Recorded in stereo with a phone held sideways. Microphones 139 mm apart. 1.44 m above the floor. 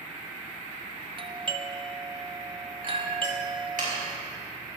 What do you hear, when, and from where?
1.2 s a doorbell: 40° right (ahead or behind), 0.6 m
2.8 s a clink: 75° right (ahead or behind), 5 m